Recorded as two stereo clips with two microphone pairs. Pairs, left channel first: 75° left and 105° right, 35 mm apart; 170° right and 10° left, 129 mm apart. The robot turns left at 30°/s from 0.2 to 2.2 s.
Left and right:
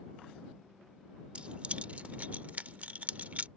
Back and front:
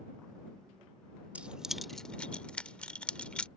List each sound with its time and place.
1.4 s keys jangling: 60° right; by 3.5 s 85° right